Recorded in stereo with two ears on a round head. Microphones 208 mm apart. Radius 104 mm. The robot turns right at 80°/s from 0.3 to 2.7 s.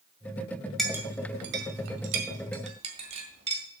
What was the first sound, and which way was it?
A clink, centre (ahead or behind).